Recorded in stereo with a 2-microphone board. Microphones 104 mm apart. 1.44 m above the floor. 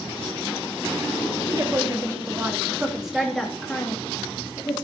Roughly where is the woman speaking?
Right.